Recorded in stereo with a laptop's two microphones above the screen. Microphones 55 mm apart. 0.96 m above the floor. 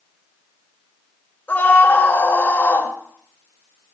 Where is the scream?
35° left (ahead or behind), 5 m.